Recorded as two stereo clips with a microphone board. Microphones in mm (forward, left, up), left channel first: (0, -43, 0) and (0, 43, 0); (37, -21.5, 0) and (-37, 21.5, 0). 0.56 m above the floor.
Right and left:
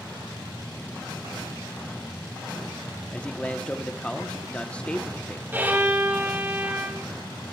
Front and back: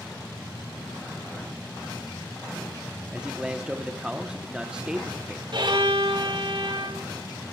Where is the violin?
155° left, 3.5 m.